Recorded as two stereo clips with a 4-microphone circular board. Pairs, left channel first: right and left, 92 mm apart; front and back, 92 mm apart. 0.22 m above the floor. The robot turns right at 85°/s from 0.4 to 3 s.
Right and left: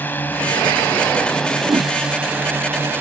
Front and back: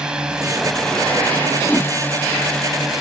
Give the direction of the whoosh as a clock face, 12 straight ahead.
10 o'clock.